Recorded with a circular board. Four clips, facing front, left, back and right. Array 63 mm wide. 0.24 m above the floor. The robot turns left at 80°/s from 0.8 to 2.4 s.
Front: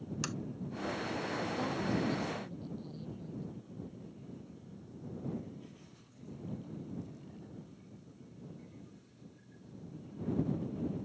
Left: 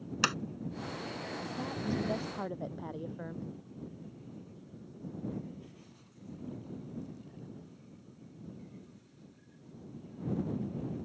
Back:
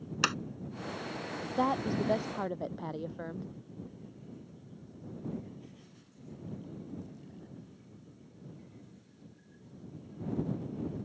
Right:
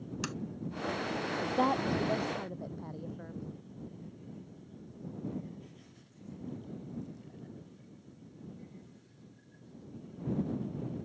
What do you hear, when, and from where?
0.2 s a sliding door: 140° left
1.6 s a woman speaking: 130° right; by 3.5 s 165° left